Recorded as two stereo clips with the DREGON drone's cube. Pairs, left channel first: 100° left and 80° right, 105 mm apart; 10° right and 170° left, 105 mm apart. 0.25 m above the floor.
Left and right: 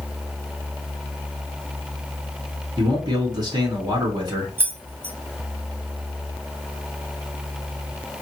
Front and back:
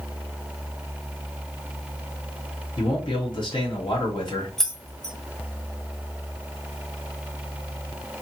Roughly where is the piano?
I don't hear a piano.